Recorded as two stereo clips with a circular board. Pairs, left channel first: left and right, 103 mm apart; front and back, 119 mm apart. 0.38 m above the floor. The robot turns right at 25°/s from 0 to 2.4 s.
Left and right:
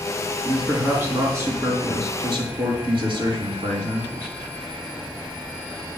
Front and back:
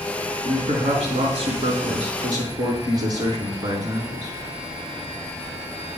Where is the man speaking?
170° right, 4.5 m; by 4.4 s 125° right, 4.5 m.